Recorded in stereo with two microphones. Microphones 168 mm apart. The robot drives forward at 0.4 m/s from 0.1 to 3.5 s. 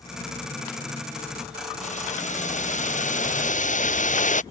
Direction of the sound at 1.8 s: 45° left (ahead or behind).